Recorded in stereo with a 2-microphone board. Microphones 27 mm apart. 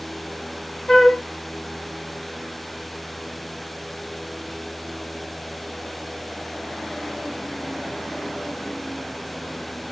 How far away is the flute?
About 2.5 m.